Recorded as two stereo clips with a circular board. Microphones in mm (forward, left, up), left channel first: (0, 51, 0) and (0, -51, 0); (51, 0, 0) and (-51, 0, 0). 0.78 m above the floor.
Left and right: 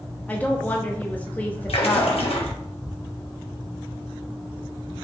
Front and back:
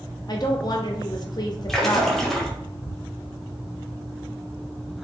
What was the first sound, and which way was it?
A woman speaking, 20° left.